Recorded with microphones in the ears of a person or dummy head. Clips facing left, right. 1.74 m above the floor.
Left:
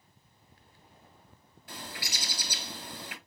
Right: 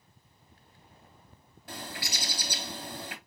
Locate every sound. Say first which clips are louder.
1.7 s a bird: right 3 dB; 45° right (ahead or behind), 2.5 m